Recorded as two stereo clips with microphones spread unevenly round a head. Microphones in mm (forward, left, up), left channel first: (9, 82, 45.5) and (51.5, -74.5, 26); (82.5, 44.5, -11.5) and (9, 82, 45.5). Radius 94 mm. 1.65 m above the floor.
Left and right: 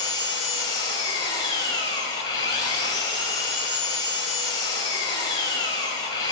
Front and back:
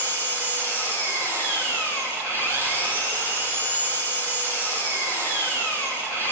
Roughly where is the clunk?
No clunk in this recording.